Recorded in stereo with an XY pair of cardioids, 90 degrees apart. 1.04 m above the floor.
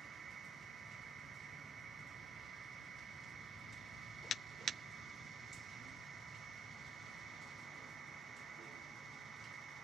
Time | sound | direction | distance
0.0 | a machine running | 60° right | 0.7 m